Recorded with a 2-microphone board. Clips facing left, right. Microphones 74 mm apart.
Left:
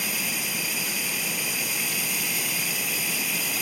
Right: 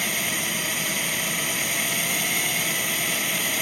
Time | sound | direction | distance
0.0 | a drone | 60° right (ahead or behind) | ?